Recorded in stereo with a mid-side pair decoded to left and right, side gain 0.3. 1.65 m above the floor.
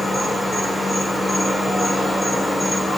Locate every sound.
0.0 s an insect: 30° left, 0.9 m